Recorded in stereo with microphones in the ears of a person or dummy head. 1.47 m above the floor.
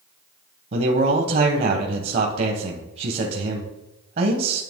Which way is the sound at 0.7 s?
50° right (ahead or behind).